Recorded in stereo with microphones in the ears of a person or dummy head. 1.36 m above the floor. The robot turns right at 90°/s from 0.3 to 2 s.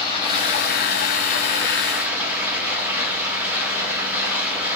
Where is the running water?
35° left, 1.1 m; by 4.8 s 170° right, 1.1 m.